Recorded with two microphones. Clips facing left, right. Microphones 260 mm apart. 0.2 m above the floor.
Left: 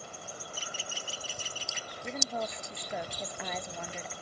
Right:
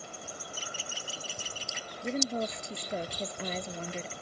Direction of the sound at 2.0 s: 30° right (ahead or behind).